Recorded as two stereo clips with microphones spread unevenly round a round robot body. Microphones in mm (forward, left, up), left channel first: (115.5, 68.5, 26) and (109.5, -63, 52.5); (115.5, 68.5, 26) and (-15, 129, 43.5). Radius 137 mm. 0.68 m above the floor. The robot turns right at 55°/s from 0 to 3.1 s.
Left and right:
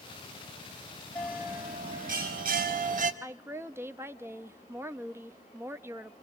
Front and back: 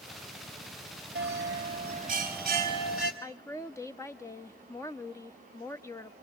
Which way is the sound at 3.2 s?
15° right.